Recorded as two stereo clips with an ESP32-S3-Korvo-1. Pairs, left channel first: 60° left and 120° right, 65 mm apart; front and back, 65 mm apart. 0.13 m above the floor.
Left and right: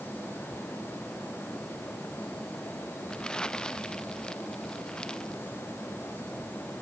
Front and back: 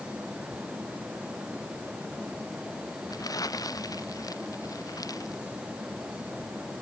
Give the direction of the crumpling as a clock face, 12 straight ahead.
1 o'clock.